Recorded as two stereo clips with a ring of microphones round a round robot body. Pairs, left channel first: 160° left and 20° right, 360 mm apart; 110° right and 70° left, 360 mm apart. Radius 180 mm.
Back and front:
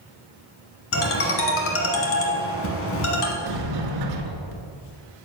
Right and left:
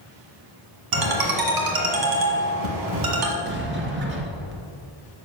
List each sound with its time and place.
0.9 s a ringtone: 100° left, 1.3 m
3.4 s a sliding door: 5° left, 1.2 m